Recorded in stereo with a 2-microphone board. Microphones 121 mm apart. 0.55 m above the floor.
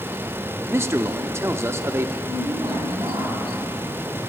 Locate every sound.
0.7 s a man speaking: 25° right (ahead or behind), 0.7 m
2.3 s a woman speaking: 40° right (ahead or behind), 3 m